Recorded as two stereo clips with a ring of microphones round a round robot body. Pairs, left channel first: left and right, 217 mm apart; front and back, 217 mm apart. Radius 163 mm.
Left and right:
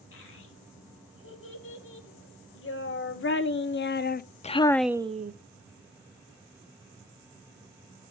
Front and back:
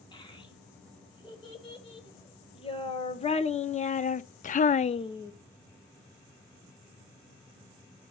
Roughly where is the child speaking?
Left.